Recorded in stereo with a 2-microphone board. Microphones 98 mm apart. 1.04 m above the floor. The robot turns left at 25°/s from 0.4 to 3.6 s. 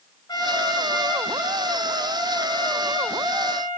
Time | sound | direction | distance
0.3 | a trumpet | 140° left | 4.5 m